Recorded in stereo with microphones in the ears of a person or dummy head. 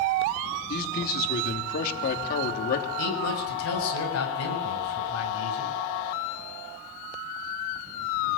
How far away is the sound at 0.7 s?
About 3 m.